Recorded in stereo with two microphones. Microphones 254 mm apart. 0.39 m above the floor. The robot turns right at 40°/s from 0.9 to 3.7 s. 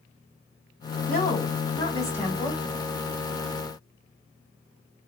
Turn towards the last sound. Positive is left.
turn(degrees=-130)